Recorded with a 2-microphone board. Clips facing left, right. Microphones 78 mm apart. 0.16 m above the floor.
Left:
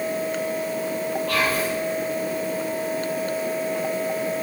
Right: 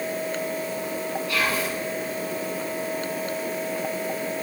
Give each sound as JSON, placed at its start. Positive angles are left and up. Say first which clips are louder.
{"t": 1.3, "sound": "whispering", "louder": "left 2 dB", "side_deg": 70, "distance_m": 4.5}